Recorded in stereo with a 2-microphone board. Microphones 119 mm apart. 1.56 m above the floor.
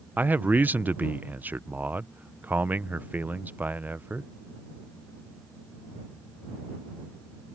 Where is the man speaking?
15° right (ahead or behind).